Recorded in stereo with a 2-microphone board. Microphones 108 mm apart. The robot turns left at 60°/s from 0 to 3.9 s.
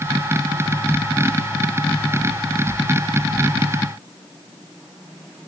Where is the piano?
No piano in this recording.